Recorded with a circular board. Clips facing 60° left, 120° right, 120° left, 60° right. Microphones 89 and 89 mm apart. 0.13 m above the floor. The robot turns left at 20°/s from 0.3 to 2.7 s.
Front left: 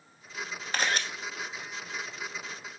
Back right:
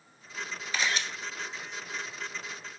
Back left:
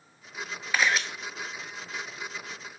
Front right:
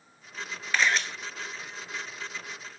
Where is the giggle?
I don't hear a giggle.